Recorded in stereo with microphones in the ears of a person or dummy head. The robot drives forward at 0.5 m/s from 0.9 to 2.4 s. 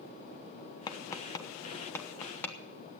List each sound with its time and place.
0.9 s tapping: 20° left (ahead or behind), 0.6 m; by 2.5 s 10° left (ahead or behind), 1.1 m